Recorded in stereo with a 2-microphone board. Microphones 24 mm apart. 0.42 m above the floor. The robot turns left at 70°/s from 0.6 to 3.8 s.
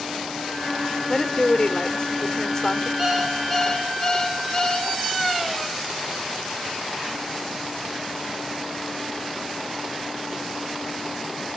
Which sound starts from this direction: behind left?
A woman speaking, at 1.1 s.